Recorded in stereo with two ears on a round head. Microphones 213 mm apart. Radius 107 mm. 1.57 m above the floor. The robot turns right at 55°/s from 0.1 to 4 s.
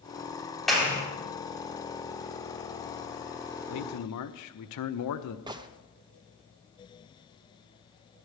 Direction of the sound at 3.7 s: 75° left (ahead or behind).